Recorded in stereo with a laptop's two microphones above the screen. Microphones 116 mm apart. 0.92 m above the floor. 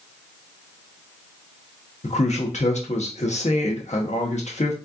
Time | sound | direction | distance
2.0 | a man speaking | 75° left (ahead or behind) | 0.9 m